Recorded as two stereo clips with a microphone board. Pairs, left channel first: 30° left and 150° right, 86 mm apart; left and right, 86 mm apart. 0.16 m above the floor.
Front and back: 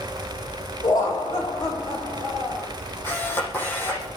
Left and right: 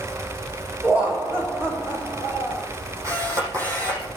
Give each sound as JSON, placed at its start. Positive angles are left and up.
{"t": 0.8, "sound": "laughter", "azimuth_deg": -15, "distance_m": 9.0}
{"t": 3.0, "sound": "a camera shutter", "azimuth_deg": -35, "distance_m": 7.5}